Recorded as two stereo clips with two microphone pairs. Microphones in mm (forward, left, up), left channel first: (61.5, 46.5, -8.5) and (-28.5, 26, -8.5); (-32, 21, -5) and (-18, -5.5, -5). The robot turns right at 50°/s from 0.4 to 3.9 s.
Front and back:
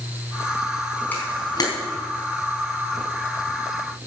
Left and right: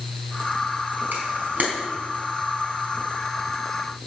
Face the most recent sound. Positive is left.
turn(degrees=80)